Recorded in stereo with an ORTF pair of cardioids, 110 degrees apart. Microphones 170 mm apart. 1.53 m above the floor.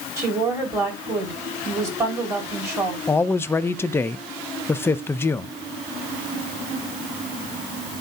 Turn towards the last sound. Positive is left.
turn(degrees=15)